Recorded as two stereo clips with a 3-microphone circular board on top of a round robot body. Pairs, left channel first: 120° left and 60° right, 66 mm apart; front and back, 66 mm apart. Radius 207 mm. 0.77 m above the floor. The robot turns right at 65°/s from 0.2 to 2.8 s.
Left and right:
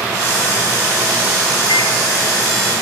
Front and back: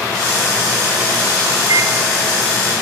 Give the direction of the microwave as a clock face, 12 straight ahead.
7 o'clock.